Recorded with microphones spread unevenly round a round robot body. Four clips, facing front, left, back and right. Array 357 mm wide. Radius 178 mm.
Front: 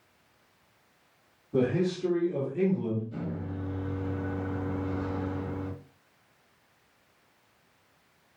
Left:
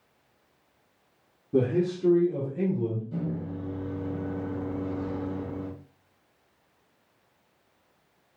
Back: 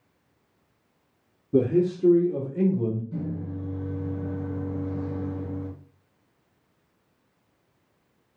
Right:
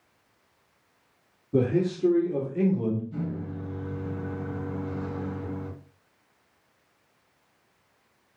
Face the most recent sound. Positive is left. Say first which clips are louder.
# left 1 dB, back 3 dB
turn(degrees=105)